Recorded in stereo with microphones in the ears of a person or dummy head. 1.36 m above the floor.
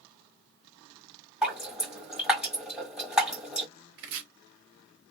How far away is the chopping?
About 1.1 m.